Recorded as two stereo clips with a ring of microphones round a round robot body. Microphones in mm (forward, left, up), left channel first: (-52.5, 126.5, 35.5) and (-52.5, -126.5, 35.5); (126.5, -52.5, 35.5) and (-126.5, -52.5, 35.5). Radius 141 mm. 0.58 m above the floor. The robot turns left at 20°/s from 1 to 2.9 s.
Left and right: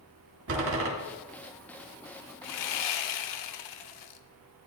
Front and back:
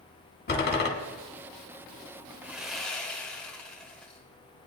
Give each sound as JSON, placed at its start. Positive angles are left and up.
{"t": 0.5, "sound": "a door slam", "azimuth_deg": -50, "distance_m": 2.0}
{"t": 2.4, "sound": "sawing", "azimuth_deg": 95, "distance_m": 0.6}